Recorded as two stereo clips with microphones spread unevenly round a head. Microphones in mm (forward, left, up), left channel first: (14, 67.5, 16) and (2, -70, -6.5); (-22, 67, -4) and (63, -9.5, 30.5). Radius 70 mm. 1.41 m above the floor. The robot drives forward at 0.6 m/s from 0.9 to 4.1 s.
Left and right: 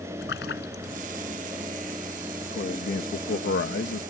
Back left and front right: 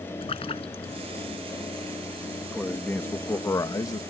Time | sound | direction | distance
0.2 | a splash | 95° left | ?
2.5 | a man speaking | 55° left | ?